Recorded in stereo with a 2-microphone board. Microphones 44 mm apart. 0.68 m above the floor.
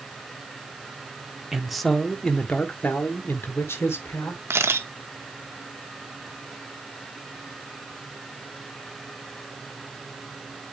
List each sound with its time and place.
1.5 s a man speaking: 10° right (ahead or behind), 1.4 m; by 4.4 s 70° left (ahead or behind), 2.5 m
4.5 s a camera shutter: 65° right (ahead or behind), 1.0 m